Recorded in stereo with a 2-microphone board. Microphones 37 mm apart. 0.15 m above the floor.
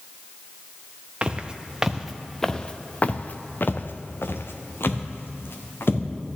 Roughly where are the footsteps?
Right.